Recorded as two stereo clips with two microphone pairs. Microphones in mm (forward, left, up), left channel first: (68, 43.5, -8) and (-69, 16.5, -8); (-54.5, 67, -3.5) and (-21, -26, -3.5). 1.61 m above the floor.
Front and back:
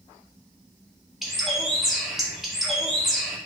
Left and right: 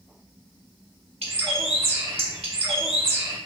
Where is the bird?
80° right, 1.2 m.